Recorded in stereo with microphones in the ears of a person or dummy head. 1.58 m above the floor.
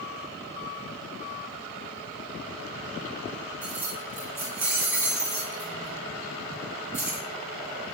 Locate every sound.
3.6 s keys jangling: 10° right (ahead or behind), 0.7 m